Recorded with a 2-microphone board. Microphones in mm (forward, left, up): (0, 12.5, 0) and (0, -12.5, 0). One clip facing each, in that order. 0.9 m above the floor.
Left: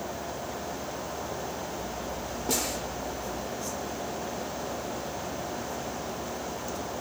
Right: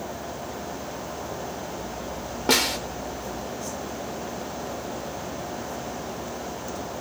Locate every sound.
2.5 s a snare drum: 70° right (ahead or behind), 1.0 m